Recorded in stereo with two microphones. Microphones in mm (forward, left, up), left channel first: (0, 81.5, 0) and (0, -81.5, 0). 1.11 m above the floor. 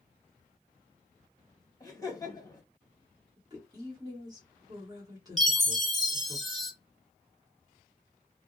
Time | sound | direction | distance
1.8 | laughter | 20° left (ahead or behind) | 1.1 m
3.4 | a woman speaking | 25° right (ahead or behind) | 1.3 m
5.4 | a chime | centre (ahead or behind) | 0.6 m